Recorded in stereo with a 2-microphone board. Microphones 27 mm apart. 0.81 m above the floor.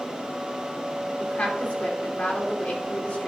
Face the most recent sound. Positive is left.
turn(degrees=50)  # may be behind; listen again after turning